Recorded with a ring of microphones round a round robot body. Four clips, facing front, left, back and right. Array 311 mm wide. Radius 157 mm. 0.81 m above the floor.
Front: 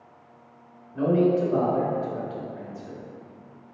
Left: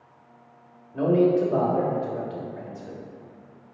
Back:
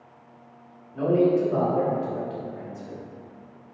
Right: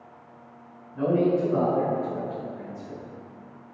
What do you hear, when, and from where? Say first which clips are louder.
0.9 s a man speaking: left 3 dB, back 1 dB; 85° left, 1.7 m